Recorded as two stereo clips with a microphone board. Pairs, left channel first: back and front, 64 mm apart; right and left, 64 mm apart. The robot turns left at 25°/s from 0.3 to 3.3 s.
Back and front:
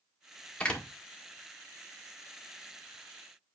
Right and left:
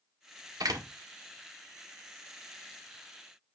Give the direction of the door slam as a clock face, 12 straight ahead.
8 o'clock.